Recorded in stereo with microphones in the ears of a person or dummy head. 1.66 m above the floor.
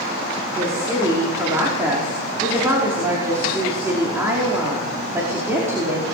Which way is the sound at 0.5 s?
15° right (ahead or behind).